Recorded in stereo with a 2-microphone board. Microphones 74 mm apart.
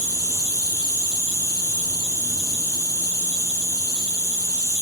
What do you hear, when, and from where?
0.0 s an insect: 50° right (ahead or behind), 1.2 m